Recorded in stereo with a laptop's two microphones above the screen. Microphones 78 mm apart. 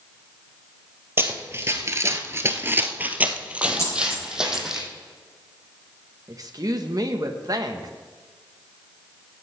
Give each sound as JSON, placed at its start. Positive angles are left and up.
{"t": 1.2, "sound": "running footsteps", "side_deg": -30, "distance_m": 1.5}
{"t": 3.8, "sound": "a dropped coin", "side_deg": 35, "distance_m": 5.5}
{"t": 6.3, "sound": "a woman speaking", "side_deg": -50, "distance_m": 1.1}